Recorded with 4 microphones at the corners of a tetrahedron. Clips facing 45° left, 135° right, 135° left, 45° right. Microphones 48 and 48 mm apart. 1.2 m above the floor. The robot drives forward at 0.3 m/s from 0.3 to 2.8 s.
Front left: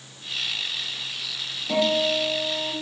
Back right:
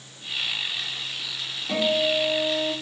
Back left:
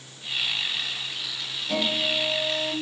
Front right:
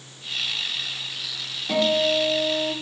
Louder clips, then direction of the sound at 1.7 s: Front left 1 dB, front right 6 dB; 65° right.